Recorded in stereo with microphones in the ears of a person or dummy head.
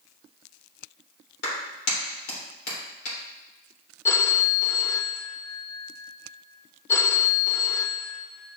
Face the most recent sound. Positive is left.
turn(degrees=15)  # may be behind; listen again after turning